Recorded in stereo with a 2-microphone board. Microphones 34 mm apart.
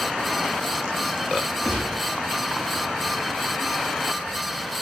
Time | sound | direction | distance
1.6 | a gunshot | 15° right (ahead or behind) | 6 m